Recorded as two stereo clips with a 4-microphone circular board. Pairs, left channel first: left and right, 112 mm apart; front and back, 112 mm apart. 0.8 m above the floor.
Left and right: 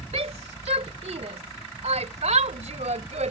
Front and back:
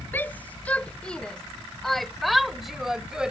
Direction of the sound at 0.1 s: 70° right.